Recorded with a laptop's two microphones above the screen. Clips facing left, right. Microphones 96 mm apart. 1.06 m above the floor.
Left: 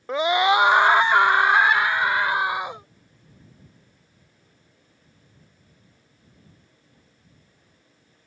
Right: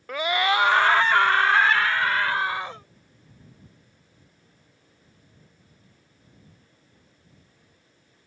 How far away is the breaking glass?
No breaking glass in this recording.